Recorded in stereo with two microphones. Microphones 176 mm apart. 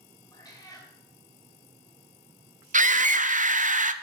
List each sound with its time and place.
0.3 s a cat meowing: 20° left (ahead or behind), 2.5 m
2.7 s a scream: 45° right (ahead or behind), 0.6 m